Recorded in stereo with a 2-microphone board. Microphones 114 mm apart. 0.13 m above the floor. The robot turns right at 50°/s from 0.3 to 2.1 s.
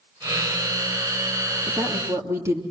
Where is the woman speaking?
5° right (ahead or behind), 3 m; by 2.6 s 25° right (ahead or behind), 3 m.